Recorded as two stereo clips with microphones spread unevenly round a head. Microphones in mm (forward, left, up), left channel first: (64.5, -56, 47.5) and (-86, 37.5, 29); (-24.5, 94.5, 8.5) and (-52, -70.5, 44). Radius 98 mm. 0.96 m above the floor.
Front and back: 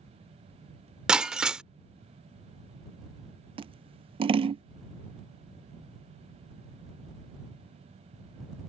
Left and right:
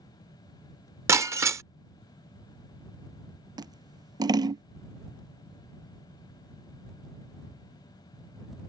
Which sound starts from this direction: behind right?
Breaking glass, at 1.1 s.